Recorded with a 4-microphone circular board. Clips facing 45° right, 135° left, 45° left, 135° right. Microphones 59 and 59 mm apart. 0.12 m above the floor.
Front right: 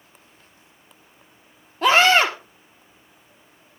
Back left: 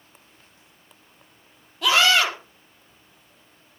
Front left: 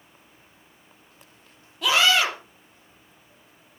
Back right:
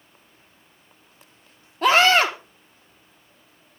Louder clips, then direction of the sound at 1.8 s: Front right 3 dB, back right 4 dB; 90° right.